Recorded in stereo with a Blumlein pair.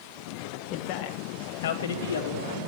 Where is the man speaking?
35° left, 2 m; by 2.6 s 65° left, 2.5 m.